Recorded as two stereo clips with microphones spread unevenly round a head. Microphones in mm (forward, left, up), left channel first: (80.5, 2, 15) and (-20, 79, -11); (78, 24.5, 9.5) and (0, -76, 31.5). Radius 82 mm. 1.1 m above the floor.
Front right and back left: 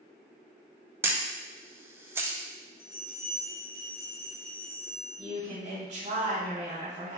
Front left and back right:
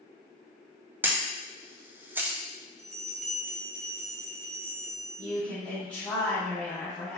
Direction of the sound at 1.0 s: 150° left.